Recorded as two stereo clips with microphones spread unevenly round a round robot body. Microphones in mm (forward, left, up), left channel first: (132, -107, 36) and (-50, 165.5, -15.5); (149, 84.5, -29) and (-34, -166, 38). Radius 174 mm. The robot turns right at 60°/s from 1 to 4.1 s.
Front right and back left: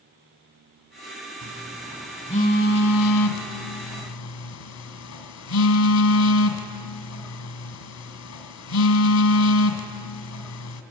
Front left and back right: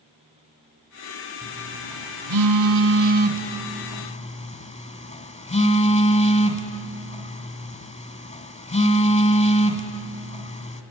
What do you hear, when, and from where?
1.4 s a phone buzzing: straight behind, 2 m; by 10.8 s 20° right, 2 m